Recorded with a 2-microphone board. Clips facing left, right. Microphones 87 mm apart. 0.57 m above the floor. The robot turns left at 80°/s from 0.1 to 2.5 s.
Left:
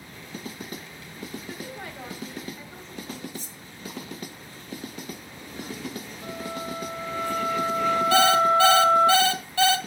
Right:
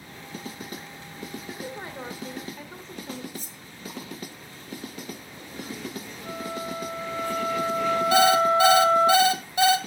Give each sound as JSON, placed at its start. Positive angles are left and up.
{"t": 1.5, "sound": "a woman speaking", "azimuth_deg": -5, "distance_m": 2.0}
{"t": 3.3, "sound": "cutlery clinking", "side_deg": -50, "distance_m": 1.2}
{"t": 6.2, "sound": "a flute", "side_deg": 40, "distance_m": 3.0}
{"t": 8.1, "sound": "an alarm clock", "side_deg": -20, "distance_m": 1.4}